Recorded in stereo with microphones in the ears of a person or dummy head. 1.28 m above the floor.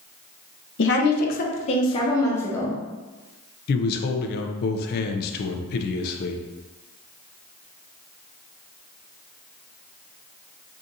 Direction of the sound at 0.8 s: 55° left (ahead or behind).